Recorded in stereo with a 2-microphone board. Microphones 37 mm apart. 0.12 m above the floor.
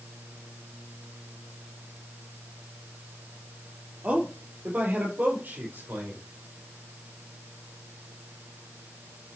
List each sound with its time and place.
4.0 s a man speaking: 40° right (ahead or behind), 3.5 m; by 6.2 s 65° right (ahead or behind), 5.5 m